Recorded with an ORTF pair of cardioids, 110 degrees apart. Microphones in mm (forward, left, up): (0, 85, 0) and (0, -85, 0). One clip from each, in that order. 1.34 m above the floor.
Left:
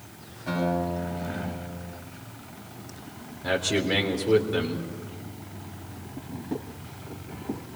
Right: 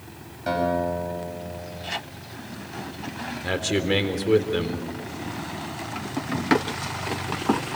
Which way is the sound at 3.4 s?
15° right.